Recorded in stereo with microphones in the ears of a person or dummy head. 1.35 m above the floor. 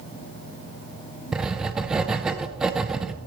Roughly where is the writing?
Centre.